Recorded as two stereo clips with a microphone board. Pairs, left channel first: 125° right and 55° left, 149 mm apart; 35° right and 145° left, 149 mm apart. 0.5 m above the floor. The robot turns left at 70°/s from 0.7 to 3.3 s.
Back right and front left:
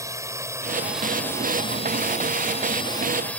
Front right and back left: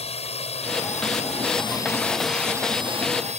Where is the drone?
10° right; by 3.4 s 155° left.